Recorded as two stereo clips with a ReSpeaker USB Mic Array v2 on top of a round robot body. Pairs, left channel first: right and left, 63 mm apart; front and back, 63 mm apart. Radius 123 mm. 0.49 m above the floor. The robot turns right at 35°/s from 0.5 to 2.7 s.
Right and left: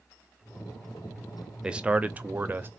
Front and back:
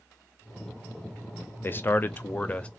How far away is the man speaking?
About 0.7 m.